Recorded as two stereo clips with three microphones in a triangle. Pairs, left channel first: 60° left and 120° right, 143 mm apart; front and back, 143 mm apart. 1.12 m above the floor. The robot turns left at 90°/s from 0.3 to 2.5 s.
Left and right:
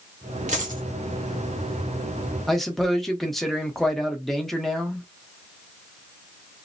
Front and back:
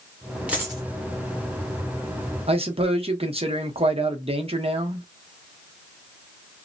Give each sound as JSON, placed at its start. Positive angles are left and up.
{"t": 0.5, "sound": "a dropped coin", "azimuth_deg": -100, "distance_m": 1.2}
{"t": 2.5, "sound": "a man speaking", "azimuth_deg": 150, "distance_m": 0.8}